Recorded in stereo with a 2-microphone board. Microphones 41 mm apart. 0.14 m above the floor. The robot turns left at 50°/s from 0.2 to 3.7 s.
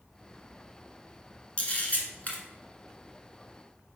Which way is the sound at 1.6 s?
30° left (ahead or behind).